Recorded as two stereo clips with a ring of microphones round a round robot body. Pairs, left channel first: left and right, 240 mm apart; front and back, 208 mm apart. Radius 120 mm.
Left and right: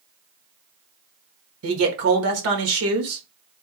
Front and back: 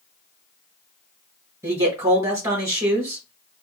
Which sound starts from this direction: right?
A man speaking, at 1.6 s.